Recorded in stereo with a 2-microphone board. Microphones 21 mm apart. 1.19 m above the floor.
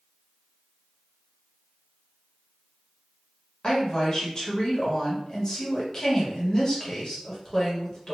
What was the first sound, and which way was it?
A woman speaking, 40° left (ahead or behind).